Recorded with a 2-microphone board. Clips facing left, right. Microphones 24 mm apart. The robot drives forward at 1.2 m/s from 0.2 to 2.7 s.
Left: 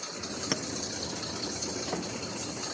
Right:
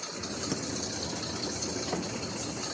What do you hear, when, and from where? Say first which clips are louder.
0.5 s a clink: left 4 dB; 50° left (ahead or behind)